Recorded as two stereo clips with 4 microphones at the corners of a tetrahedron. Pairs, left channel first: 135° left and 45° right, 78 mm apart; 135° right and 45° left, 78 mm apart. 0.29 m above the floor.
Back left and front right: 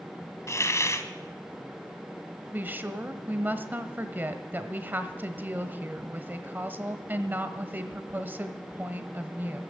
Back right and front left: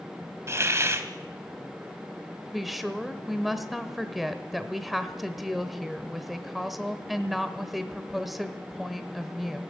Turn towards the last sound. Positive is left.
turn(degrees=-45)